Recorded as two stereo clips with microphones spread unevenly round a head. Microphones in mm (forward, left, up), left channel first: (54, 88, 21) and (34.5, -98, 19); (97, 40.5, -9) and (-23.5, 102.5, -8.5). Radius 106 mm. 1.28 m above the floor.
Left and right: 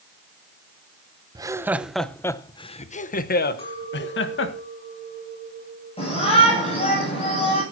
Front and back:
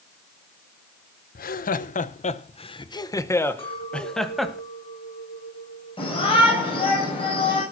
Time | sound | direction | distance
1.4 | laughter | 25° right | 1.3 m
3.6 | a clink | 25° left | 7.5 m
6.0 | a shout | 25° left | 8 m